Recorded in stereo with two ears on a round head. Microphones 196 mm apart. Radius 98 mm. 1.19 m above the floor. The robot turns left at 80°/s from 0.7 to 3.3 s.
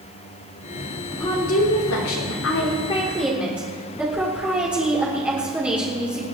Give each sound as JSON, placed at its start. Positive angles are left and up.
{"t": 1.1, "sound": "a woman speaking", "azimuth_deg": 170, "distance_m": 3.0}